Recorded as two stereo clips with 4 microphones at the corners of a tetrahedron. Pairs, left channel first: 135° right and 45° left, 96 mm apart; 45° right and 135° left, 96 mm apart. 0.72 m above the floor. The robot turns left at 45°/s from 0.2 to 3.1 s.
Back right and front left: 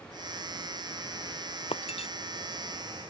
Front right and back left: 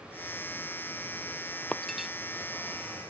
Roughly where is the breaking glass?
Behind right.